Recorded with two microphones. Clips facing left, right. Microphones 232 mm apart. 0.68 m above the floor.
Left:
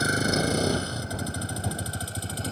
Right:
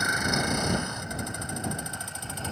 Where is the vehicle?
35° left (ahead or behind).